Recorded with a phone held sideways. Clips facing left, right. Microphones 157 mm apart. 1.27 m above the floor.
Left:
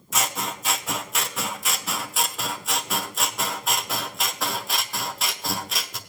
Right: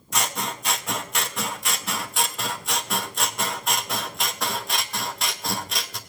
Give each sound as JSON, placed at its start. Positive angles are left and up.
{"t": 0.1, "sound": "scissors", "side_deg": 0, "distance_m": 0.8}